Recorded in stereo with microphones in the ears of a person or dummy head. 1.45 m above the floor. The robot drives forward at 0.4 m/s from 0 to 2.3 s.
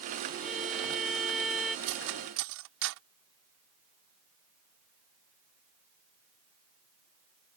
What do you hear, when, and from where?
0.4 s a violin: 5° right (ahead or behind)
1.9 s cutlery clinking: 75° right (ahead or behind)